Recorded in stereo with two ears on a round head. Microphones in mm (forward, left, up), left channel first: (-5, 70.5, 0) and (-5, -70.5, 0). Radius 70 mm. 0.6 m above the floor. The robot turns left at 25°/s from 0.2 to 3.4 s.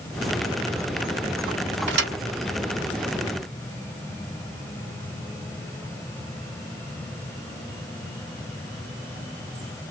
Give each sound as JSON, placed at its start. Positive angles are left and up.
{"t": 1.9, "sound": "a thud", "side_deg": -75, "distance_m": 1.3}